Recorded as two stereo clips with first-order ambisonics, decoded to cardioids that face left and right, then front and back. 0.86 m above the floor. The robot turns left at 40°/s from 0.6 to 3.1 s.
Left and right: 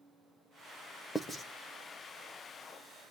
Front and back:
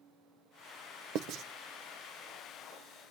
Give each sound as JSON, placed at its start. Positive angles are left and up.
{"t": 1.1, "sound": "writing", "azimuth_deg": 170, "distance_m": 0.7}